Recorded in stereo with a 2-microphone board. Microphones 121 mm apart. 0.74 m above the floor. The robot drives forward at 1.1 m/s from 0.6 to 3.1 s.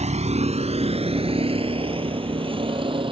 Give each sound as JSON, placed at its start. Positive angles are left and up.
{"t": 0.0, "sound": "a vehicle", "side_deg": -70}